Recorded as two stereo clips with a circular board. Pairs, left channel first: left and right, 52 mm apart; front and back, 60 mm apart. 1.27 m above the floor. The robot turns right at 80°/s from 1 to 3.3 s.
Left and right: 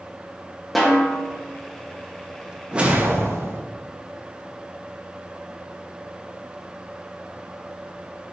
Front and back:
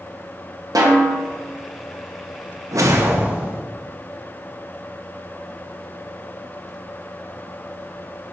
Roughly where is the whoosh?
Behind.